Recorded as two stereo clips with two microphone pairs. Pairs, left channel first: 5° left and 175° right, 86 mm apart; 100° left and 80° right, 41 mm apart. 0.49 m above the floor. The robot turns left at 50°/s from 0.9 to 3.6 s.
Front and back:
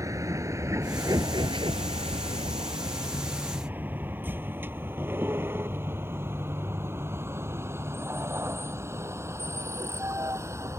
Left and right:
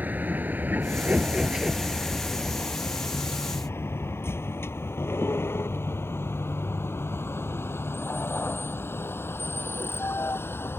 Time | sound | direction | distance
0.0 | a vehicle | 125° right | ?